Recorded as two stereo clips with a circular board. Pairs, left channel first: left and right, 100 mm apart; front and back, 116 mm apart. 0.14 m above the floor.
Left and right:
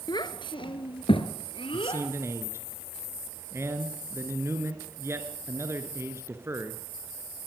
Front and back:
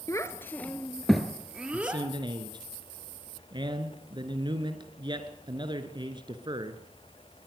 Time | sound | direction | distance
0.1 | a child speaking | 55° left | 1.4 m
1.7 | a man speaking | 145° right | 2.5 m